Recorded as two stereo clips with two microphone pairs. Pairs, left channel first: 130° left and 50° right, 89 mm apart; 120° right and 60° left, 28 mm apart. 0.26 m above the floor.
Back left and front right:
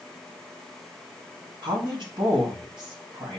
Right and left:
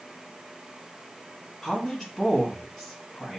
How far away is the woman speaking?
About 2 m.